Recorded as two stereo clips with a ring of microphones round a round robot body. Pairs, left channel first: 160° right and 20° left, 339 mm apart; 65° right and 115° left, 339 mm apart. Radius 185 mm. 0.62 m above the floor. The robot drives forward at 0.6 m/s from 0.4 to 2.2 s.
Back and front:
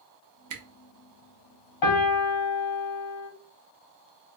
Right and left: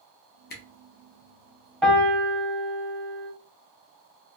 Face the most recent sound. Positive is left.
turn(degrees=-160)